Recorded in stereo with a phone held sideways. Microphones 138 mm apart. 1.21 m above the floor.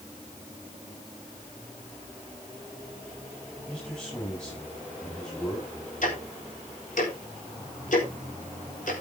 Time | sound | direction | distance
3.7 | a man speaking | 5° left (ahead or behind) | 7 m
6.0 | ticking | 65° left (ahead or behind) | 4 m